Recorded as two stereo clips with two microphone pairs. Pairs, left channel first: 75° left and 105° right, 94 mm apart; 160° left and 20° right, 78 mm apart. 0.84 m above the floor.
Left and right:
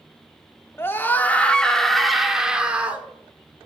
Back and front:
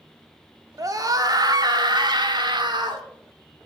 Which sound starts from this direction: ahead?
A scream, at 0.8 s.